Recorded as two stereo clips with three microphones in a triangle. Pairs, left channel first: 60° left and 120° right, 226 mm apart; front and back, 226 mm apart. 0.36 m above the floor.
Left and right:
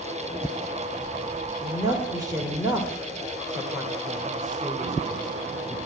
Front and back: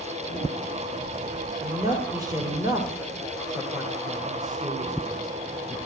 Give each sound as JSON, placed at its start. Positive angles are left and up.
{"t": 1.6, "sound": "a woman speaking", "azimuth_deg": -155, "distance_m": 1.3}